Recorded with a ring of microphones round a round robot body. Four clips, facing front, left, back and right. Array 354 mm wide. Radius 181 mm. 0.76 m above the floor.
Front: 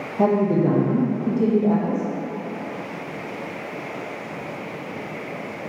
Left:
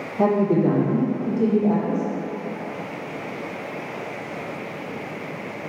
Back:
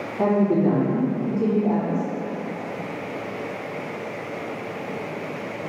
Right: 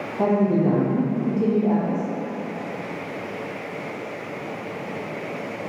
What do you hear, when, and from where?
0.2 s a woman speaking: 45° left, 0.7 m